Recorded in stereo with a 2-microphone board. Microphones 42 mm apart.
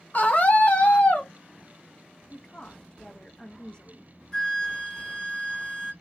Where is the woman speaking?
25° left (ahead or behind), 0.7 m.